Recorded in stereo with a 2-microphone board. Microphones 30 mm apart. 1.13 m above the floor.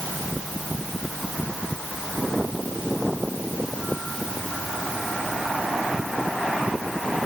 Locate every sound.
Only background noise.